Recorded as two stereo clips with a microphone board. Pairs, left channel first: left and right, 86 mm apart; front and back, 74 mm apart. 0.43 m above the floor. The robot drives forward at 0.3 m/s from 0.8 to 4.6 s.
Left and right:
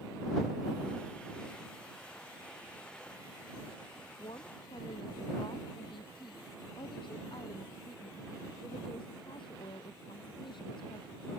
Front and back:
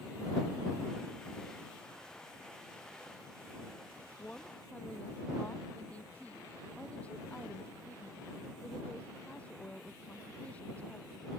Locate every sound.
4.2 s a woman speaking: 70° left; by 11.2 s 75° left